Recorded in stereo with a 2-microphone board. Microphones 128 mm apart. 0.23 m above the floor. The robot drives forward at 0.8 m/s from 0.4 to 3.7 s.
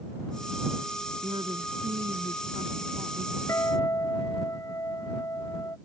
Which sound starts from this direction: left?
A guitar, at 3.5 s.